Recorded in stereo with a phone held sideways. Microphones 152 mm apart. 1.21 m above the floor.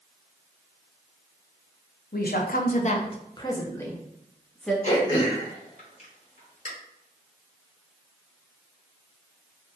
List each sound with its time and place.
2.1 s a woman speaking: 75° left (ahead or behind), 0.6 m; by 4.7 s centre (ahead or behind), 1.3 m
4.8 s throat clearing: 50° left (ahead or behind), 1.5 m